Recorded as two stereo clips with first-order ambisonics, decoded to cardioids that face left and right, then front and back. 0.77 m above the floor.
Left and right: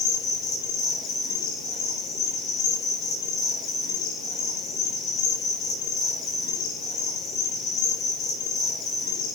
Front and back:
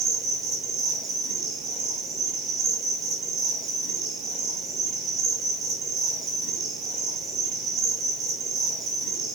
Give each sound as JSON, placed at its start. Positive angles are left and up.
{"t": 0.0, "sound": "an insect", "azimuth_deg": 130, "distance_m": 5.5}